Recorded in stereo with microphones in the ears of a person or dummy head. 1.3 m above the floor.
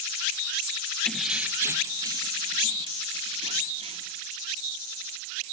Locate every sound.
1.1 s keys jangling: centre (ahead or behind), 0.7 m; by 4.2 s 35° right (ahead or behind), 2.5 m